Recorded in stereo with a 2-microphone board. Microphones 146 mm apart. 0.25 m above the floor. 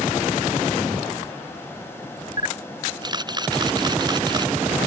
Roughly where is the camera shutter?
Right.